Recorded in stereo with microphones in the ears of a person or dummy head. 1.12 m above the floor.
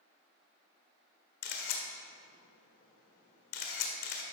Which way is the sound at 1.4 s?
60° left (ahead or behind).